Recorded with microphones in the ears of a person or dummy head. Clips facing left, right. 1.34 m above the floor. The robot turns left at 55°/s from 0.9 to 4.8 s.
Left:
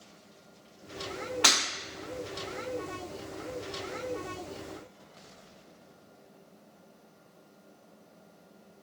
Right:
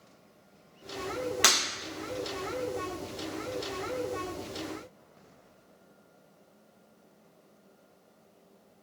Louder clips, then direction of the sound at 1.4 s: Even; 25° right (ahead or behind).